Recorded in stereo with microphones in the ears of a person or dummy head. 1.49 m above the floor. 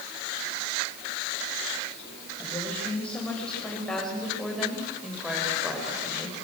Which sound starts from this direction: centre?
A woman speaking, at 2.4 s.